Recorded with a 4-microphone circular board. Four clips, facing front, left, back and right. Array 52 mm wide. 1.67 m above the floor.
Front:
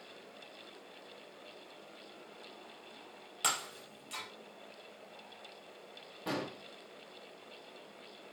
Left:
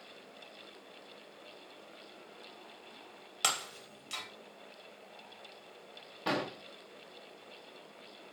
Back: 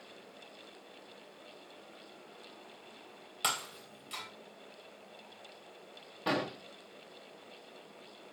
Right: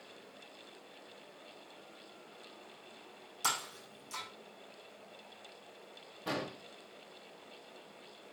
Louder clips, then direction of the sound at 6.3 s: Left 4 dB, back 5 dB; 130° left.